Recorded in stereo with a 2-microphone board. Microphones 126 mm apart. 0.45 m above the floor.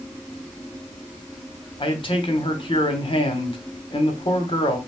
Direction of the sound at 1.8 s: 40° left (ahead or behind).